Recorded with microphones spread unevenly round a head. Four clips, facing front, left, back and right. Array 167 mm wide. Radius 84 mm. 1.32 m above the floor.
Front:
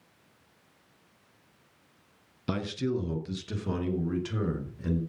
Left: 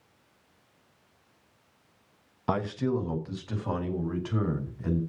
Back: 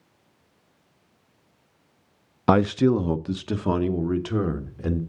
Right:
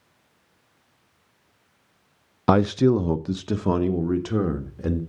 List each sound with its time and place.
2.5 s a man speaking: 110° right, 0.5 m